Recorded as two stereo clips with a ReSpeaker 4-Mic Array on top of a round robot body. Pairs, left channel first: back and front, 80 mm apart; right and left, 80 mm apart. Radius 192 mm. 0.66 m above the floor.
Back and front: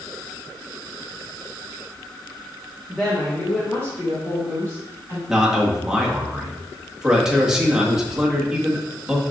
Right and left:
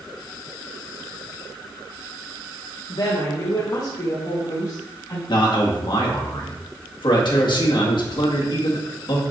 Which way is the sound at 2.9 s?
95° right.